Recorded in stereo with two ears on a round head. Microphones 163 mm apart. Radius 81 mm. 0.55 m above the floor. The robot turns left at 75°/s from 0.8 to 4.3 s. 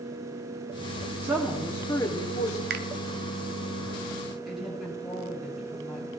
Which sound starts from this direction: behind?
A woman speaking, at 1.2 s.